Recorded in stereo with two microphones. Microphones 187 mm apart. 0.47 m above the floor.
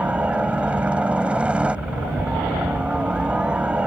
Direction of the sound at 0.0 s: 5° right (ahead or behind).